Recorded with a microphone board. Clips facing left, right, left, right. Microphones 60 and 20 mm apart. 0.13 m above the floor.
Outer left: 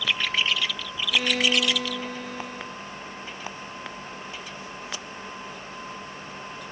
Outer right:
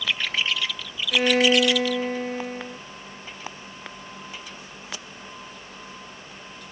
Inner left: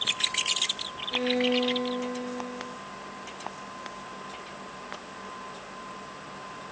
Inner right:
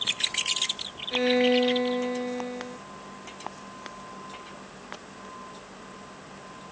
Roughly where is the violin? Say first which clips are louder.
Outer right 5 dB, inner right 4 dB; right.